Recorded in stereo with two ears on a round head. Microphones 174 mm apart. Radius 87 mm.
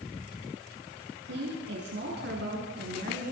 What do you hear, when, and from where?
1.2 s a woman speaking: 70° right (ahead or behind), 9 m; by 3.3 s 55° right (ahead or behind), 6.5 m